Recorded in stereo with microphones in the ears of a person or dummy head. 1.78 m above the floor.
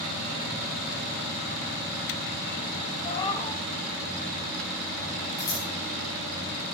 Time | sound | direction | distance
3.0 | a cat meowing | 30° left (ahead or behind) | 1.9 m
5.4 | scissors | 15° left (ahead or behind) | 5 m